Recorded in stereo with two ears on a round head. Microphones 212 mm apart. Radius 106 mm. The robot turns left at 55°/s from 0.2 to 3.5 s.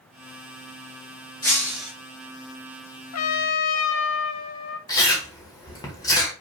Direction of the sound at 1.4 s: 15° left (ahead or behind).